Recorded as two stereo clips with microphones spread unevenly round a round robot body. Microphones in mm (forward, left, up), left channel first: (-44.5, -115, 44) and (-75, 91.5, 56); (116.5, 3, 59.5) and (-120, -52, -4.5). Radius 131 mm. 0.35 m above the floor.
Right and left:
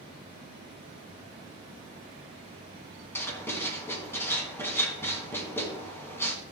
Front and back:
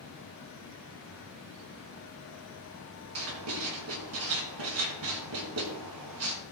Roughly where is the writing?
Behind.